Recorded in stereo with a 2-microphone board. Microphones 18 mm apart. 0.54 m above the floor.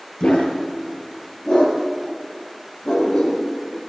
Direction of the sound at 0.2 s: 90° left.